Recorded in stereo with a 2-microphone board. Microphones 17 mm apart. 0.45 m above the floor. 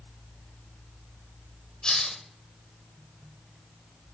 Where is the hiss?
65° left (ahead or behind), 0.9 m.